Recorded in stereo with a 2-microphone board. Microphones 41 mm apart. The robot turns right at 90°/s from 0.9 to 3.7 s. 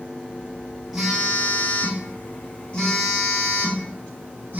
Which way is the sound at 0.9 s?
10° right.